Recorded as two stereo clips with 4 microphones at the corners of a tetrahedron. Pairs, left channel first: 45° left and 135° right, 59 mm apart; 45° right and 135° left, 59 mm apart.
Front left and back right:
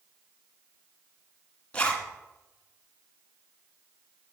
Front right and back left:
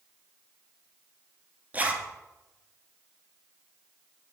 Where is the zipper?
100° left, 1.8 m.